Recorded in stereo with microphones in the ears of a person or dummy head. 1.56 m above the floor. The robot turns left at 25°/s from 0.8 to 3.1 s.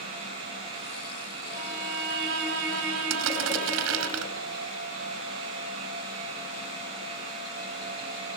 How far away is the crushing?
About 4.5 m.